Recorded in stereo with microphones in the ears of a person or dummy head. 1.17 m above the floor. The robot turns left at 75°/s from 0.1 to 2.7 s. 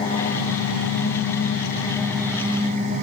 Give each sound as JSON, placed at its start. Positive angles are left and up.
{"t": 0.0, "sound": "an engine running", "azimuth_deg": 155, "distance_m": 0.9}